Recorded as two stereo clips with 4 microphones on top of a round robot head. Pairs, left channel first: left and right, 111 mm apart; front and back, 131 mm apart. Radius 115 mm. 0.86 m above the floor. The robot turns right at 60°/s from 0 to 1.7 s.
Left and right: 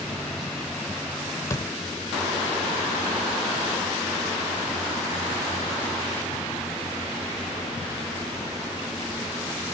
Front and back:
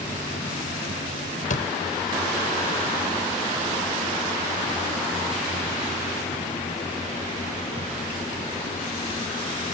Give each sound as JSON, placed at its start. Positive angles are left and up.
{"t": 1.5, "sound": "a door slam", "azimuth_deg": 20}